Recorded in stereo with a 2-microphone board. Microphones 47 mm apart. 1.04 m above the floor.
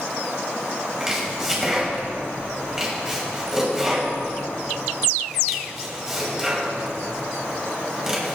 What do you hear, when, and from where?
1.0 s chopping: 10° right (ahead or behind), 6.5 m